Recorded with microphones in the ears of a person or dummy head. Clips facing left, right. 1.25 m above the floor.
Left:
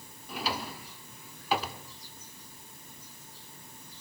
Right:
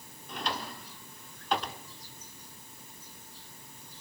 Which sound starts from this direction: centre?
A drawer, at 0.3 s.